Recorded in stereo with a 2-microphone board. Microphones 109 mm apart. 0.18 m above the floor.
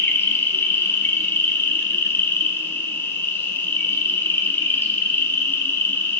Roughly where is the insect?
Left.